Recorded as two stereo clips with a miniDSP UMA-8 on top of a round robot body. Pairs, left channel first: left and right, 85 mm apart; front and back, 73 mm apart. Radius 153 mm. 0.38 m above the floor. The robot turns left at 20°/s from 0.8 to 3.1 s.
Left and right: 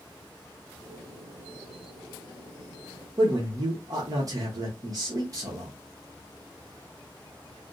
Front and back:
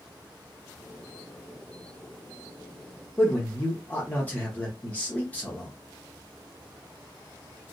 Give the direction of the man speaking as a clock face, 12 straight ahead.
2 o'clock.